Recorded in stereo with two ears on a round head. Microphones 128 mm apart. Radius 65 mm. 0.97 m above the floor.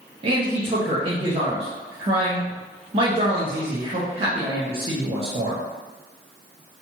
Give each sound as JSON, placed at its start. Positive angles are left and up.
{"t": 0.2, "sound": "a man speaking", "side_deg": -35, "distance_m": 0.5}